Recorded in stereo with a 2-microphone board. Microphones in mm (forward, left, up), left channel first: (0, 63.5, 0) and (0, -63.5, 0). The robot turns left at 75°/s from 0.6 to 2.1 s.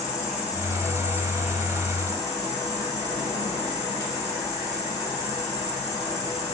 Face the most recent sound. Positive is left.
turn(degrees=35)